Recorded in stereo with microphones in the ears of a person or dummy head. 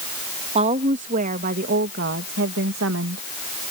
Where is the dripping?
I don't hear dripping.